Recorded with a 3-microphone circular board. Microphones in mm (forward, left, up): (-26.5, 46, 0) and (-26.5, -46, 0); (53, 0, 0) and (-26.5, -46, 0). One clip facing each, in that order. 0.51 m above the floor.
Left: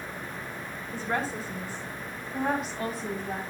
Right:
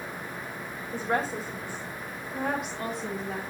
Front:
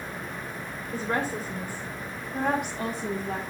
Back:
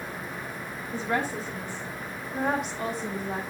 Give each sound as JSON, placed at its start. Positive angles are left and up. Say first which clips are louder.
{"t": 0.9, "sound": "a woman speaking", "louder": "right 2 dB, even", "azimuth_deg": -15, "distance_m": 2.0}